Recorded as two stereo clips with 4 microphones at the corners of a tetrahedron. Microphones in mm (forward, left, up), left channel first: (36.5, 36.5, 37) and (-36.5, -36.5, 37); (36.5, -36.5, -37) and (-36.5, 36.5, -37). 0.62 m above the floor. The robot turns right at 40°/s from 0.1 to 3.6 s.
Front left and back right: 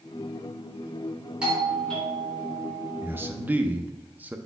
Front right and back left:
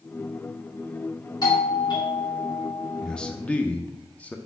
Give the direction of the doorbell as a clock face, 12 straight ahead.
2 o'clock.